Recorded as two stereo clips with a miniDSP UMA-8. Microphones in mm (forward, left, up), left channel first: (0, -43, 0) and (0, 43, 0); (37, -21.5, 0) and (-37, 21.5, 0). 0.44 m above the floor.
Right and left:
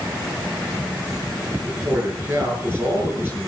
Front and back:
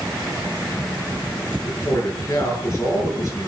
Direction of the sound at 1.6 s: 25° left.